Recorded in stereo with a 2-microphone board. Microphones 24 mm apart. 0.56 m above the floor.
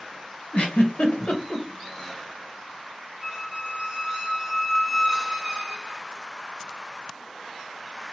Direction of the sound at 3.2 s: 35° right (ahead or behind).